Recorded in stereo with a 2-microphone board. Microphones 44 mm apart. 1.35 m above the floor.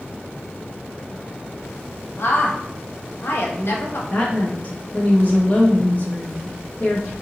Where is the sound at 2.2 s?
65° left (ahead or behind), 0.8 m.